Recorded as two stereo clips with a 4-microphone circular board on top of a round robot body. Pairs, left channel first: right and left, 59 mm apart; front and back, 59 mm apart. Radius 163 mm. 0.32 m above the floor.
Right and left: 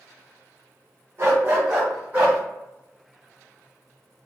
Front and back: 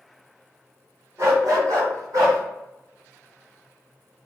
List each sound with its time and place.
1.2 s a dog barking: 140° left, 1.3 m; by 2.4 s 155° left, 2 m